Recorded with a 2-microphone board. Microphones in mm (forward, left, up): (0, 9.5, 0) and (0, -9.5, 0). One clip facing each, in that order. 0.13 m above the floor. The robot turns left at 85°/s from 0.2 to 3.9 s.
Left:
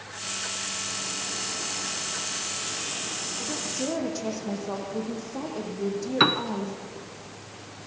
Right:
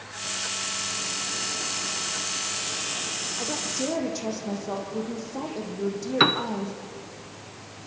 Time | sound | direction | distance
3.4 | a woman speaking | 130° right | 5 m
6.2 | a piano | 5° right (ahead or behind) | 0.6 m